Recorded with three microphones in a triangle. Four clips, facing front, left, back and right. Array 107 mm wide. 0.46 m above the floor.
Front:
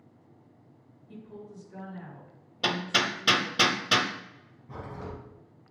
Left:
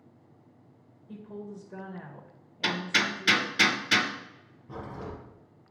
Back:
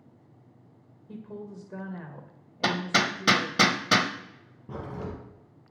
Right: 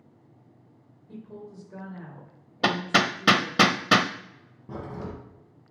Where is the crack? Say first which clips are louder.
Right 3 dB, back 3 dB; 140° right, 3 m.